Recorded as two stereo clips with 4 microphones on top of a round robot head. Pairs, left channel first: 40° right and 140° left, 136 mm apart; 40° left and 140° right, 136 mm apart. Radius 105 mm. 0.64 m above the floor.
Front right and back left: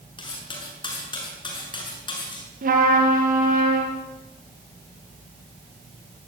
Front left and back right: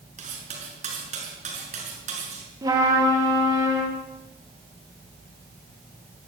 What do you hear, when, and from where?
0.2 s cutlery clinking: 100° right, 6.5 m
2.6 s a trumpet: 160° left, 6.5 m